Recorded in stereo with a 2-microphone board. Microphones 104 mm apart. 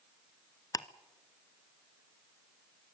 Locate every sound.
0.7 s ticking: 35° left (ahead or behind), 0.7 m